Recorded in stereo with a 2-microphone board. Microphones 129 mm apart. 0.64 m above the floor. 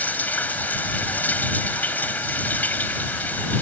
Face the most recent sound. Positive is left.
turn(degrees=15)  # may be behind; listen again after turning